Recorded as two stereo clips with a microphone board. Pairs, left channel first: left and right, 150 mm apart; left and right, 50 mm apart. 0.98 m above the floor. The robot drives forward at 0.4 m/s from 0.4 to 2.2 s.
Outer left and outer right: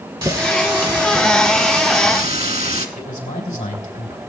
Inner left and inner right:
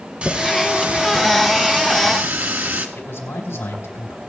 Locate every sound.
0.2 s a running tap: 30° right (ahead or behind), 1.8 m; by 2.9 s 45° right (ahead or behind), 1.2 m
3.0 s a man speaking: 50° left (ahead or behind), 3.5 m